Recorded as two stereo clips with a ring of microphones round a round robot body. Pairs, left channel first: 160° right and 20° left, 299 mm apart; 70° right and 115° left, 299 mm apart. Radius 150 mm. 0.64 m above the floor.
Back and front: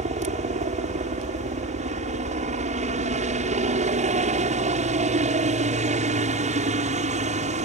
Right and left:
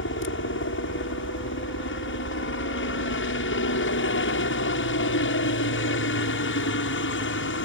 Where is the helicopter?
35° right.